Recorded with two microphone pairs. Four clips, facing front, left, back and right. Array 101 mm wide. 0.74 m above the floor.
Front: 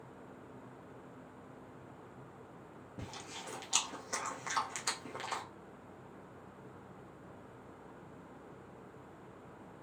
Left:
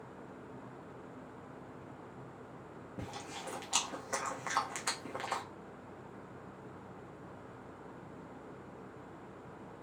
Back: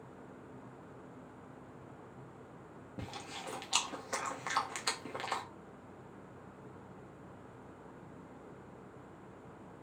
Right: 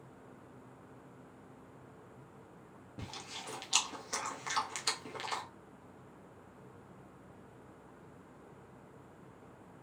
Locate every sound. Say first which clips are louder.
3.0 s chewing: left 3 dB, back 3 dB; 100° left, 0.7 m